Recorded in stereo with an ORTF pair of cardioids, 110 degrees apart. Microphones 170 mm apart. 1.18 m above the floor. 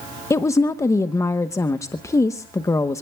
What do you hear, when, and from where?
0.3 s a woman speaking: 15° left, 1.0 m